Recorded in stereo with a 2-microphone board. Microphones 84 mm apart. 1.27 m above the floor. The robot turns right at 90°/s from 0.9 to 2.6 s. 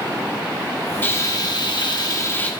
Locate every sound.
1.0 s frying: 25° left, 1.2 m; by 2.5 s 160° left, 1.2 m